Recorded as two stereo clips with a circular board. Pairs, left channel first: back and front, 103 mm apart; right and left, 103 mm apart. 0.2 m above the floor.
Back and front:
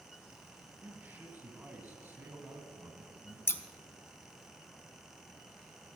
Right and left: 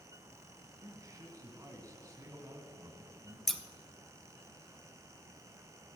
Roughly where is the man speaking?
Ahead left.